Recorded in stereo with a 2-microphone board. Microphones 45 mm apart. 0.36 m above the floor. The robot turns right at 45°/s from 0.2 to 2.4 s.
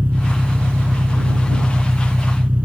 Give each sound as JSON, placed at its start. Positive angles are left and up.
{"t": 0.0, "sound": "an engine running", "azimuth_deg": -135}